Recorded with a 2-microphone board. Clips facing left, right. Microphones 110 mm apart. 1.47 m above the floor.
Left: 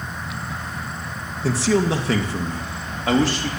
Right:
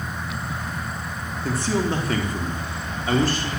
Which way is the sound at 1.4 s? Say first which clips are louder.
Left 4 dB; 80° left.